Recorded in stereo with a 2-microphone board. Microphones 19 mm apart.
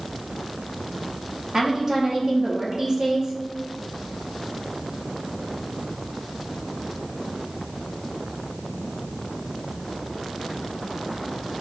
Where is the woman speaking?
30° right (ahead or behind), 5 m.